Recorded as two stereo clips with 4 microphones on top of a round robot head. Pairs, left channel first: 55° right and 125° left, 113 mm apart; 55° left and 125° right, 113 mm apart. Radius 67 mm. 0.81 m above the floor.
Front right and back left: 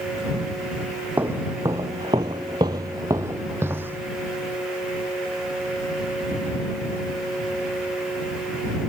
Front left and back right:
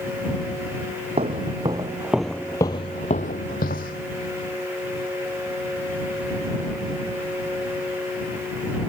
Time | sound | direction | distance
1.2 | footsteps | 160° right | ?